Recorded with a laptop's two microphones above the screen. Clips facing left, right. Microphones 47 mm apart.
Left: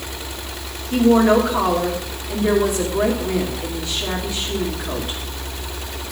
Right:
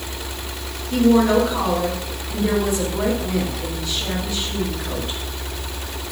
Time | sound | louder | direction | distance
0.9 | a woman speaking | left 1 dB | 10° left (ahead or behind) | 1.7 m